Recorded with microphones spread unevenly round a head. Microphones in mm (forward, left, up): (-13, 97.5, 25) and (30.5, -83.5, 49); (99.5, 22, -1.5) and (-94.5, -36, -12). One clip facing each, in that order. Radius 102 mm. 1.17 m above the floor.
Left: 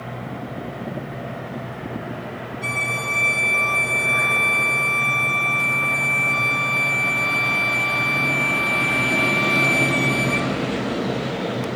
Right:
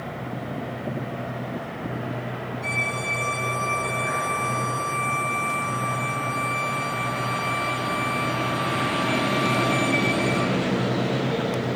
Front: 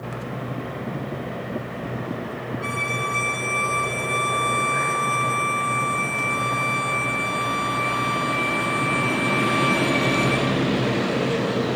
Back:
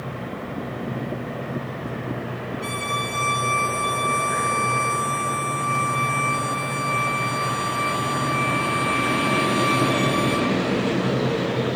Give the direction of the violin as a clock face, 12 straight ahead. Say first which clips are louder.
Left 1 dB, even; 8 o'clock.